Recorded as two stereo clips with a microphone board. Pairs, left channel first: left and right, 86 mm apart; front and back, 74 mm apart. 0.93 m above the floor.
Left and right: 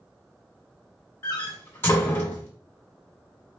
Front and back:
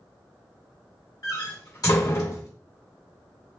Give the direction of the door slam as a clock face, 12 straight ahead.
11 o'clock.